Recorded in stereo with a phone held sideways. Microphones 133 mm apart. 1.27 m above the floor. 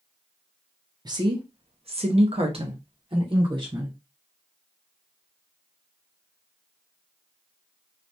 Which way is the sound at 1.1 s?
30° right (ahead or behind).